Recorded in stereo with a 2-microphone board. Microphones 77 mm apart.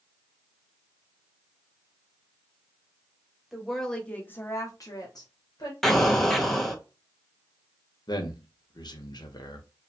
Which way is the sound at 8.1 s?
65° left (ahead or behind).